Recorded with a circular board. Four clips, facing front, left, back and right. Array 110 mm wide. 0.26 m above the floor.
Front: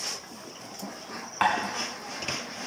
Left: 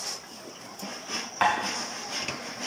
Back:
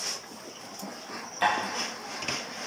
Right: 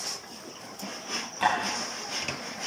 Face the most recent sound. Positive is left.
turn(degrees=40)